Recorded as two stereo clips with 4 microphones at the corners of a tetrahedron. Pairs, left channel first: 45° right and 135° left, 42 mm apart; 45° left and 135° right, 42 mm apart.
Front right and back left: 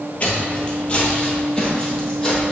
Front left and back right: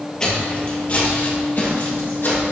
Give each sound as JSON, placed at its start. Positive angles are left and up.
{"t": 0.2, "sound": "footsteps", "azimuth_deg": -15, "distance_m": 1.7}